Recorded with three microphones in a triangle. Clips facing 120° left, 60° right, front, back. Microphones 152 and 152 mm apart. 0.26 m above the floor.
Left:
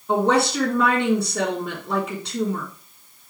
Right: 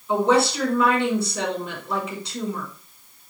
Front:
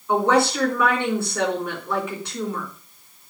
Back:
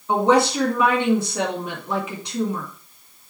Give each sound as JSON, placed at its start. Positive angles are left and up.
{"t": 0.1, "sound": "a woman speaking", "azimuth_deg": 110, "distance_m": 3.5}